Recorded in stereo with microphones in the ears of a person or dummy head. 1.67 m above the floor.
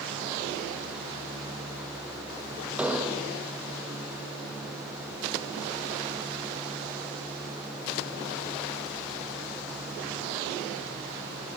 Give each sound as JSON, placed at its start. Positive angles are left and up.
{"t": 2.8, "sound": "an explosion", "side_deg": -5, "distance_m": 0.6}